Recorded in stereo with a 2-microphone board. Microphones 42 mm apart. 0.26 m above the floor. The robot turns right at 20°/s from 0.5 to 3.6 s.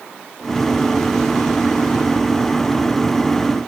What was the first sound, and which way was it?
Only background noise.